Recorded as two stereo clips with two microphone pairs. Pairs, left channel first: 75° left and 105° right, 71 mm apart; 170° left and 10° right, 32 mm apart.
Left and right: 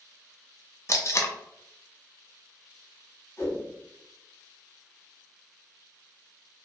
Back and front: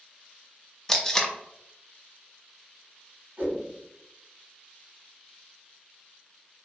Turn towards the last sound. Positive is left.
turn(degrees=20)